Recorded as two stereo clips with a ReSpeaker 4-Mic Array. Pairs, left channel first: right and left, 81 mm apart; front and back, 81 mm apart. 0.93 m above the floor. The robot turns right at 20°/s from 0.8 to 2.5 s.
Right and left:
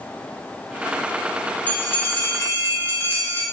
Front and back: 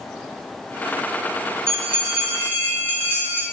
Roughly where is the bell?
Behind right.